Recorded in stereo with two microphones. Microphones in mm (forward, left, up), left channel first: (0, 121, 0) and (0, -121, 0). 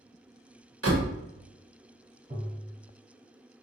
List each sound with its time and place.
0.8 s a door slam: 75° right (ahead or behind), 1.0 m
2.3 s tapping: 35° right (ahead or behind), 1.6 m